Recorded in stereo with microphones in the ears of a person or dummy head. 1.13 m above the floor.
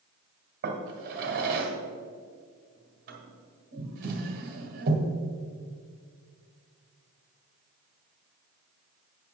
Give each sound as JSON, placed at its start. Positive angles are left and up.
{"t": 0.6, "sound": "a drawer", "side_deg": -50, "distance_m": 1.6}